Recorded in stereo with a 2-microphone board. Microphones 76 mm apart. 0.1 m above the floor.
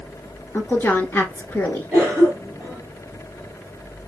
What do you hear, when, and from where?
0.5 s a woman speaking: 25° left (ahead or behind), 1.2 m
1.9 s a cough: 15° right (ahead or behind), 2.5 m